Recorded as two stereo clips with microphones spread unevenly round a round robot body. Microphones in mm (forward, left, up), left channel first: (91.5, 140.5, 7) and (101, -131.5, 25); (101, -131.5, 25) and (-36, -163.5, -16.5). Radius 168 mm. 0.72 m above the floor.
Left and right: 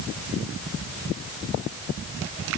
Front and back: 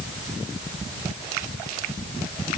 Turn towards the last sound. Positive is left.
No sound to turn to.